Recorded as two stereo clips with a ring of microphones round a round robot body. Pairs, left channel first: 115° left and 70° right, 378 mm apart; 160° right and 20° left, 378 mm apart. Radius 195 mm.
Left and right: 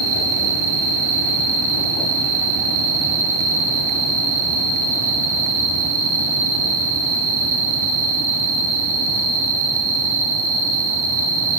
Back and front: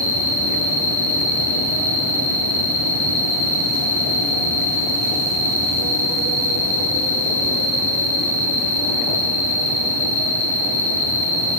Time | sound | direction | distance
0.0 | an insect | 60° right | 4 m